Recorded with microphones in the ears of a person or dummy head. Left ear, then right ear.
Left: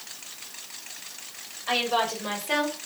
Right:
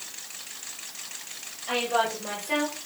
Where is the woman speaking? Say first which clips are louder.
Left 1 dB; 30° left (ahead or behind), 7.5 m; by 2.8 s 35° left (ahead or behind), 6.5 m.